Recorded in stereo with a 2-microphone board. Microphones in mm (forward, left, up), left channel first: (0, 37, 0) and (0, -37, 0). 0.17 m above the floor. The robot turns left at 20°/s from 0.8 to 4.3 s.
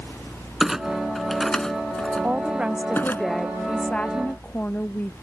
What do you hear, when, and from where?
0.6 s a clunk: 5° right (ahead or behind); by 3.2 s 30° left (ahead or behind)
2.2 s a woman speaking: 160° right; by 5.1 s 160° left